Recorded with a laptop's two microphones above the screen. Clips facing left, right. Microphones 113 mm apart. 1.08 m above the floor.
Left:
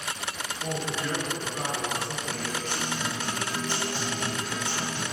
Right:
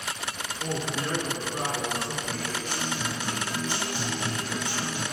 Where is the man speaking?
45° right (ahead or behind), 3.5 m.